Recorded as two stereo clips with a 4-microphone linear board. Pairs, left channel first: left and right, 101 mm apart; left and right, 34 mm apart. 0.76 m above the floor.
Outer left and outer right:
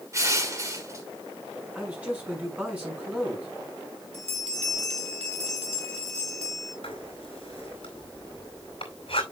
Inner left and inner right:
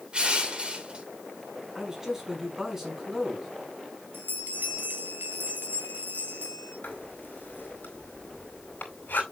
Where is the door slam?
I don't hear a door slam.